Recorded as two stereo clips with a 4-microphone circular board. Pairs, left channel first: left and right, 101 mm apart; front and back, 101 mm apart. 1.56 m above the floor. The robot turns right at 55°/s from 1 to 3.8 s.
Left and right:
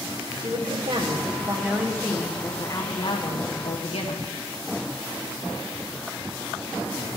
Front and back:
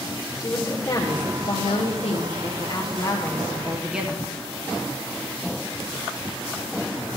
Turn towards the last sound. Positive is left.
turn(degrees=95)